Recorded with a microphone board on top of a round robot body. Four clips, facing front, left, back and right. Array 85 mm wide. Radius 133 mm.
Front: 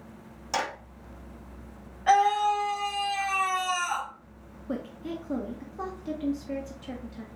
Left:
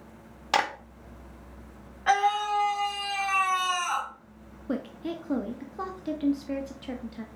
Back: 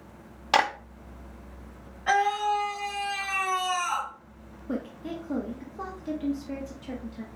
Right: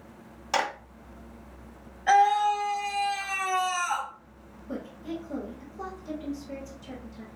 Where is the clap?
145° left, 1.0 m.